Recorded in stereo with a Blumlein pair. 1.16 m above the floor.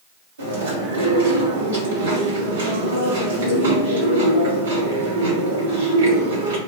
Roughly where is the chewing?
Ahead right.